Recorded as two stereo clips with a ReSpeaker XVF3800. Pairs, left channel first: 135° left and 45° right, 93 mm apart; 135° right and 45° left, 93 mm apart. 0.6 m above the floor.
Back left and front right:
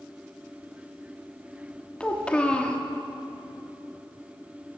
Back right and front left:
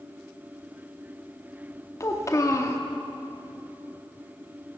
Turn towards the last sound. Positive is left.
turn(degrees=-155)